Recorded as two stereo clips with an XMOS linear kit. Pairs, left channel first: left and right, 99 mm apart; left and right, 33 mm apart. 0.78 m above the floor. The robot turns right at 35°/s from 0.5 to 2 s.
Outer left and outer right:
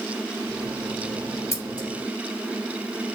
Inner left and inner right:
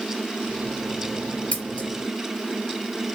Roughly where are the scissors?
Left.